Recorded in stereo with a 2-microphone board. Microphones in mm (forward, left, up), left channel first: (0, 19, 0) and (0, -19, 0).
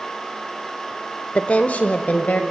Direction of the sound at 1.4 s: 30° left (ahead or behind).